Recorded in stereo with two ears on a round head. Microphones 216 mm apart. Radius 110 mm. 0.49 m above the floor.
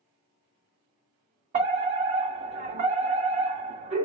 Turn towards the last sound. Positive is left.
turn(degrees=-30)  # may be behind; listen again after turning